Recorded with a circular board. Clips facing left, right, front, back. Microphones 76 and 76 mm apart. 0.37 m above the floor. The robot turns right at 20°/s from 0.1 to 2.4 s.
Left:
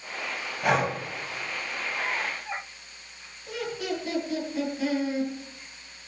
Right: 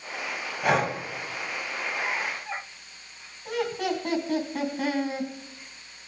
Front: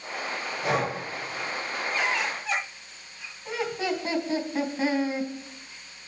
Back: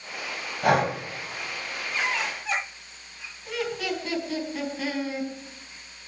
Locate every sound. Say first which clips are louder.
0.6 s breathing: even, back 5 dB; straight behind, 2 m; by 1.0 s 175° right, 2 m
3.5 s laughter: right 4 dB, front 1 dB; 60° right, 3.5 m